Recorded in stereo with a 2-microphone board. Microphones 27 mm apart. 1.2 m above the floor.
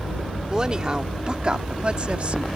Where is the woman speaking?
30° right (ahead or behind); by 2.5 s 50° right (ahead or behind).